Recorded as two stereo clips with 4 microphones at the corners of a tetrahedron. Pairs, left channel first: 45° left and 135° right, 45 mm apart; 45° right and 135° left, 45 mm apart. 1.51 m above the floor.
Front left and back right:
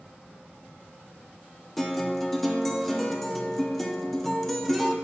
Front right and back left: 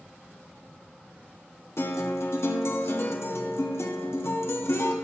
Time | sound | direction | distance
1.8 | a guitar | 40° right | 0.7 m